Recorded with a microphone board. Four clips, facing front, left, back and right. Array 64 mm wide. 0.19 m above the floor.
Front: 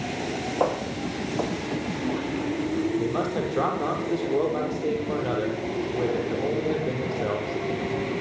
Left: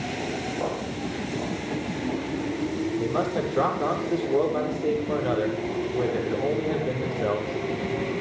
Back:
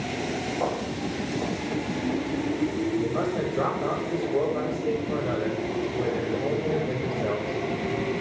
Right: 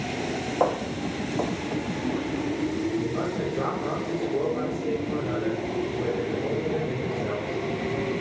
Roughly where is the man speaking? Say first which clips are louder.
Left 2 dB, even; ahead left.